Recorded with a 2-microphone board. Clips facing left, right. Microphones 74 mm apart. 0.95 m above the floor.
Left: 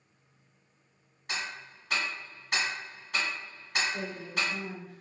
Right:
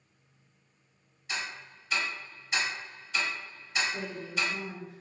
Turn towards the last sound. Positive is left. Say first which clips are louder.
# even
turn(degrees=-20)  # may be behind; listen again after turning